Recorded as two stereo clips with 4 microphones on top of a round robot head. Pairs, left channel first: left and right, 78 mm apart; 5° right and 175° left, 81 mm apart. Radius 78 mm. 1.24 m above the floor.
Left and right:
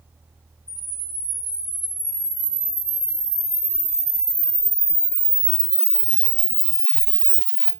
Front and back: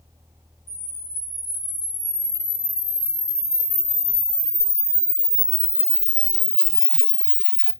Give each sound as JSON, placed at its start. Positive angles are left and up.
{"t": 0.7, "sound": "a camera shutter", "azimuth_deg": -25, "distance_m": 1.8}